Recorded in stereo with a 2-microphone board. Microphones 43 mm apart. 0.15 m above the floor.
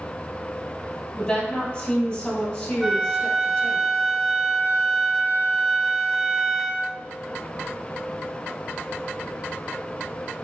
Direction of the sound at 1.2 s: 25° left (ahead or behind).